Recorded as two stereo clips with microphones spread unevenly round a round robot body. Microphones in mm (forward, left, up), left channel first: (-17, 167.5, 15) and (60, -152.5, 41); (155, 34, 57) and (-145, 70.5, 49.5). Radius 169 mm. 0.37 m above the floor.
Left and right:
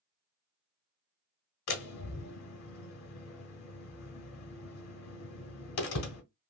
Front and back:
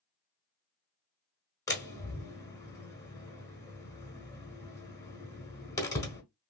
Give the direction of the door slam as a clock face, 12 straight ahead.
10 o'clock.